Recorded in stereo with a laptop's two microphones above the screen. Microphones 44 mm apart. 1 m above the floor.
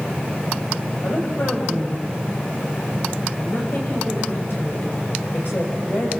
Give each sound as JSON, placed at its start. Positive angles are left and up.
{"t": 1.0, "sound": "a woman speaking", "side_deg": 65, "distance_m": 4.0}